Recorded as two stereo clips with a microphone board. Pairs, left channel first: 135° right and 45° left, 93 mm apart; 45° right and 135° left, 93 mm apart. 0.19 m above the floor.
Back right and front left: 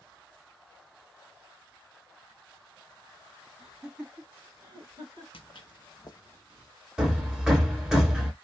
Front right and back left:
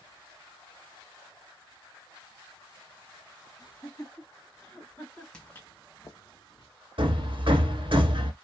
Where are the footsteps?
125° right, 0.5 m; by 6.7 s 75° right, 1.0 m.